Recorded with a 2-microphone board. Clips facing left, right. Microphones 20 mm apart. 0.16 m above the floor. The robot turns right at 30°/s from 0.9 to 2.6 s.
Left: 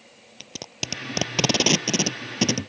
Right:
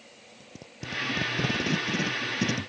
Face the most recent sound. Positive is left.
turn(degrees=55)  # may be behind; listen again after turning